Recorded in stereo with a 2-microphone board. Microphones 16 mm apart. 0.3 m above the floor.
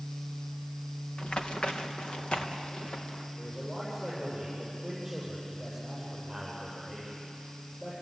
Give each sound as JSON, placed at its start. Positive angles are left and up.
{"t": 1.2, "sound": "running footsteps", "side_deg": 85, "distance_m": 2.0}
{"t": 3.4, "sound": "a man speaking", "side_deg": 0, "distance_m": 9.5}